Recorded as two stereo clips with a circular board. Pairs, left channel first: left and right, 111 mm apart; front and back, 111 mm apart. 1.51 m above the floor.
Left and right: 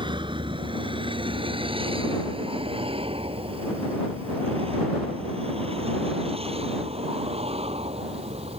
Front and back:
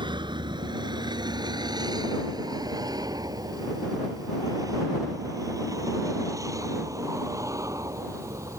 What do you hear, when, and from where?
0.0 s a vehicle: 135° right; by 8.6 s 115° right